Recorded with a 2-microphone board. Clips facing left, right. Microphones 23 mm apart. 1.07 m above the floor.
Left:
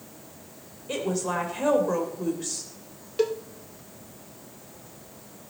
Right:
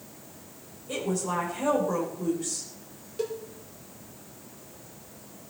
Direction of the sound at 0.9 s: 30° left (ahead or behind).